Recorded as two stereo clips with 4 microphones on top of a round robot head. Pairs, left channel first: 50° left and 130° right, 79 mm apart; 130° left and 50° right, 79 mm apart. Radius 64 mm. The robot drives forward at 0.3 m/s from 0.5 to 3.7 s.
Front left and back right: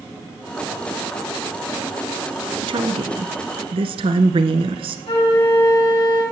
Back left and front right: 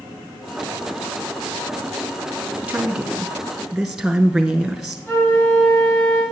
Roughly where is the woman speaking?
Behind right.